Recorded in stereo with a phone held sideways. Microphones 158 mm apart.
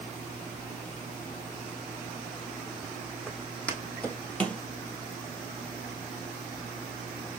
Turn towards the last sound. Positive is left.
turn(degrees=5)  # may be behind; listen again after turning